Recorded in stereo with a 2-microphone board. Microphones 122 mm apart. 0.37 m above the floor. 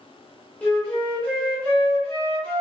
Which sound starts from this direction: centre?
A flute, at 0.6 s.